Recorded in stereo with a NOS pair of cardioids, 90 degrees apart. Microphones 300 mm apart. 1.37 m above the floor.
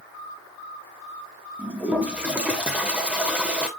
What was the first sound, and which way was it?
A toilet flushing, 5° right.